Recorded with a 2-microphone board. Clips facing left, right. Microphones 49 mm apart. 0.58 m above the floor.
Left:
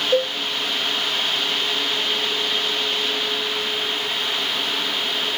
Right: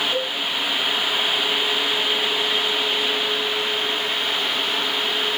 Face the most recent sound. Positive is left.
turn(degrees=50)  # may be behind; listen again after turning